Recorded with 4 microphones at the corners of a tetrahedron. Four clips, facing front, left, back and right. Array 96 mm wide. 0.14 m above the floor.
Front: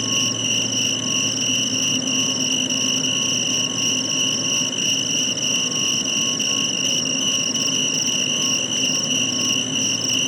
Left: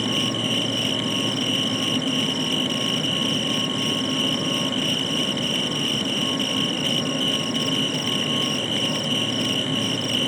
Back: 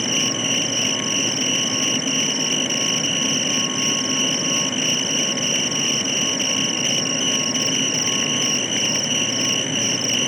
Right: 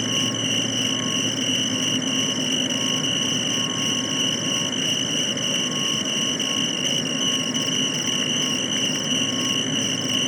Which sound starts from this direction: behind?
An insect, at 0.0 s.